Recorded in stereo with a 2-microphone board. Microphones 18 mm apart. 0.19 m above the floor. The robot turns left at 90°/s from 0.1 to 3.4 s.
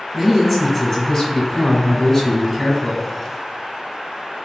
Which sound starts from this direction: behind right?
A man speaking, at 0.1 s.